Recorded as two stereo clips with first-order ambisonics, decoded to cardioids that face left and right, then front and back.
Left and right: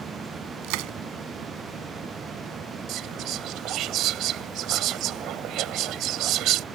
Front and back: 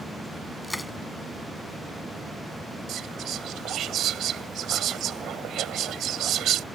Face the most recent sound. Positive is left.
turn(degrees=-130)